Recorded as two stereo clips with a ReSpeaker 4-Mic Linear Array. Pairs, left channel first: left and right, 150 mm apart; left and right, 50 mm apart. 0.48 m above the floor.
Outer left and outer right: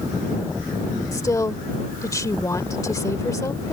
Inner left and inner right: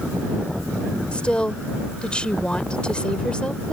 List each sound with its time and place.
1.1 s a woman speaking: 20° left (ahead or behind)